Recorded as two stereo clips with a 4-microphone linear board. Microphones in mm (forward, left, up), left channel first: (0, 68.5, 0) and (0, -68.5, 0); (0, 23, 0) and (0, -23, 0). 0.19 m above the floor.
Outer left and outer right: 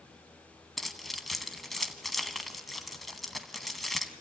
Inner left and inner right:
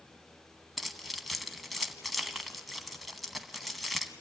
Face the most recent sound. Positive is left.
turn(degrees=0)  # may be behind; listen again after turning